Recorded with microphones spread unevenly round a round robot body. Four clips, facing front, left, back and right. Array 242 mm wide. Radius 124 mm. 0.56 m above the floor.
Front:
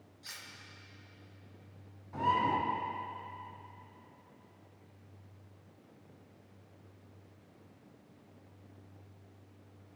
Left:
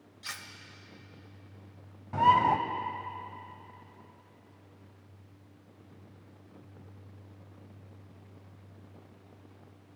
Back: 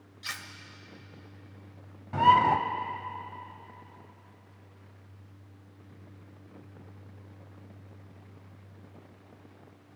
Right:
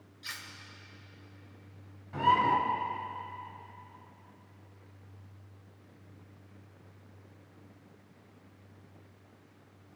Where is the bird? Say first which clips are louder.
Left 3 dB, back 9 dB; 155° left, 1.5 m.